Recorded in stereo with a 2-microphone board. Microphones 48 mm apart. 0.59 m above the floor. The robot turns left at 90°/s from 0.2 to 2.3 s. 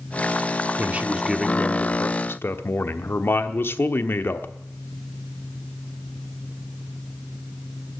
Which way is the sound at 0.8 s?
125° right.